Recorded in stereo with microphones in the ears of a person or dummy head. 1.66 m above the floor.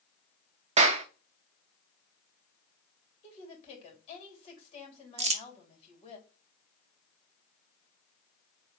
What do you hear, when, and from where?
0.8 s a clap: 30° right (ahead or behind), 0.5 m
3.2 s a woman speaking: 35° left (ahead or behind), 3 m
5.2 s crumpling: 30° right (ahead or behind), 0.5 m